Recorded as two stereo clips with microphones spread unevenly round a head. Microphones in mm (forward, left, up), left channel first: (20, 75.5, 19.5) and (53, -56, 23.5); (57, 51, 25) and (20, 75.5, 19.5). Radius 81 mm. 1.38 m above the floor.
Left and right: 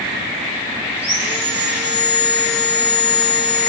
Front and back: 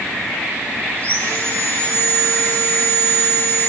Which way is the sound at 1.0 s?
155° right.